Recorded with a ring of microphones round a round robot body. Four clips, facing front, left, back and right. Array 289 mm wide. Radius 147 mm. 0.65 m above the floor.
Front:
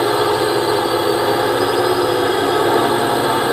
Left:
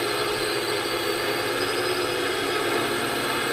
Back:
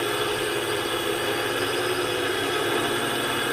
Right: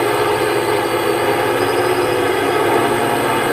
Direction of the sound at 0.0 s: 45° right.